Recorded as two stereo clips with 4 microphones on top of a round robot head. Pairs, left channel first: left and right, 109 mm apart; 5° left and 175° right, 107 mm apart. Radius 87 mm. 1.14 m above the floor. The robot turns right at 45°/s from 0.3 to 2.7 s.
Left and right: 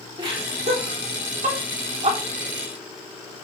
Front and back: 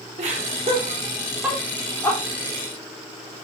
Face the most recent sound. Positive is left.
turn(degrees=-40)